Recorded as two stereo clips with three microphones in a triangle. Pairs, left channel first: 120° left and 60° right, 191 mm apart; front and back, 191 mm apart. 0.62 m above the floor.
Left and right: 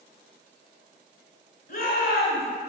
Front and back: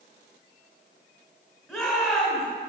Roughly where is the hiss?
I don't hear a hiss.